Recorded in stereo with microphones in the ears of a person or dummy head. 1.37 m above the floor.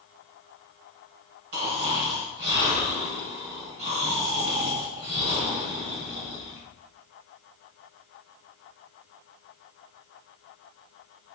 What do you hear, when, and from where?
1.5 s snoring: 60° right (ahead or behind), 1.9 m